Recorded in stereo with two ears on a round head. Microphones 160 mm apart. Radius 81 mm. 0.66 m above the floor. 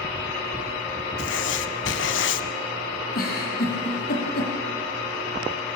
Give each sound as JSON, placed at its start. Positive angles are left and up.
{"t": 1.2, "sound": "writing", "side_deg": 80, "distance_m": 1.4}
{"t": 3.1, "sound": "a giggle", "side_deg": 55, "distance_m": 6.5}